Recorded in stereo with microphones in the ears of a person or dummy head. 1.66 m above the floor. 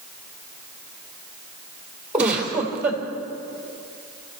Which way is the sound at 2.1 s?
5° right (ahead or behind).